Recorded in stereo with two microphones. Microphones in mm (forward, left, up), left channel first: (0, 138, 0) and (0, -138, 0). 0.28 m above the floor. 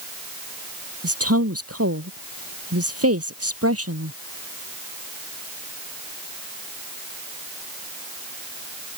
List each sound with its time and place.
1.0 s a woman speaking: 60° right (ahead or behind)